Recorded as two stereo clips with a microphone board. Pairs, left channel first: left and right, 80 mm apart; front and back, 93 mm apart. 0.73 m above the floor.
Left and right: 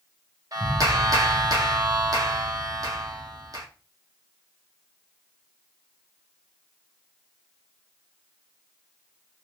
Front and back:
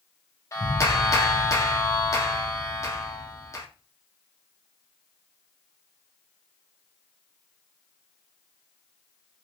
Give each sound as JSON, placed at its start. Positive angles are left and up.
{"t": 0.5, "sound": "a clap", "azimuth_deg": -55, "distance_m": 1.1}